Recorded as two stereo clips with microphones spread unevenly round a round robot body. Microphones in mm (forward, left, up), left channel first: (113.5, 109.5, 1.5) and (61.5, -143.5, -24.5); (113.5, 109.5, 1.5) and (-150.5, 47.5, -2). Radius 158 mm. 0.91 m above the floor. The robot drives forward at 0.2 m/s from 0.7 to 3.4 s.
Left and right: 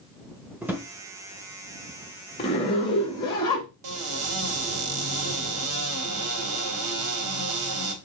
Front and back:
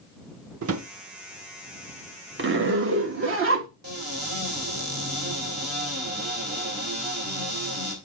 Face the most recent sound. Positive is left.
turn(degrees=-105)